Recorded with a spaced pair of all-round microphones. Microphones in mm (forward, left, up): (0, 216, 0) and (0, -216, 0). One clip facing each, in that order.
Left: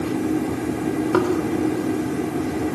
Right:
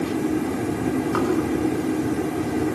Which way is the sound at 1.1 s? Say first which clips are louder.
Left 4 dB; 80° left.